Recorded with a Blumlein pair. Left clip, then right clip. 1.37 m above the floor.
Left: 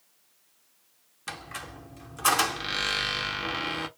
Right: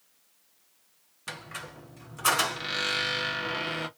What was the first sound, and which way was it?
A squeak, 5° left.